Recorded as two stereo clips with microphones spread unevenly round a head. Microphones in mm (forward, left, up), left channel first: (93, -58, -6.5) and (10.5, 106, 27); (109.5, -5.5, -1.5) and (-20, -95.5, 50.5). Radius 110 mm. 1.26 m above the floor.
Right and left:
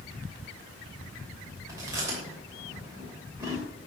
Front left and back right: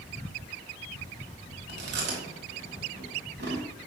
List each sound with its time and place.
1.7 s chewing: 170° right, 3 m